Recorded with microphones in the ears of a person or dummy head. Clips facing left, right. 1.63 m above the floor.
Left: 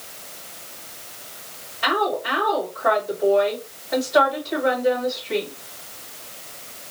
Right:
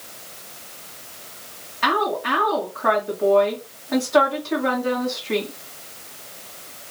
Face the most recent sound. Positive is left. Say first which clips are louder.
# even
turn(degrees=-55)  # may be behind; listen again after turning